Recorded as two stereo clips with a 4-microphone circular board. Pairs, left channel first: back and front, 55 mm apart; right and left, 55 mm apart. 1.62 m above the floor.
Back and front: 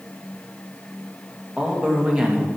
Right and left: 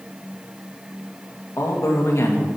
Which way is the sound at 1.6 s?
70° right.